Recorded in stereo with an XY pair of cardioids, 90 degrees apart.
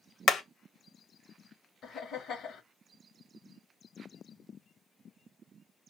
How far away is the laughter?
About 1.2 m.